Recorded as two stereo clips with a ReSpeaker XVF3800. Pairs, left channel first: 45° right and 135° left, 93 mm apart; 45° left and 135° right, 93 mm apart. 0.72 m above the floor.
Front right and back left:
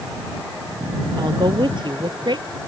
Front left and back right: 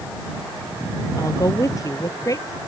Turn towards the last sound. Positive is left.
turn(degrees=100)